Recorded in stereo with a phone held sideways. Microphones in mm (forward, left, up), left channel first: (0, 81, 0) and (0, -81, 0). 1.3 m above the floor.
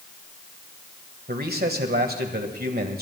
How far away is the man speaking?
About 1.5 m.